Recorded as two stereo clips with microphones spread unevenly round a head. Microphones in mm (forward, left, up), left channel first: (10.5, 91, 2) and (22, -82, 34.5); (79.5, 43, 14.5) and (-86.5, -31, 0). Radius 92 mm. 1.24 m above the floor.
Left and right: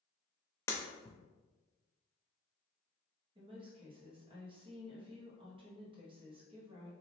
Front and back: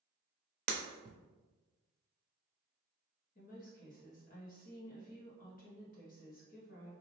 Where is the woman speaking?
25° right, 1.3 m.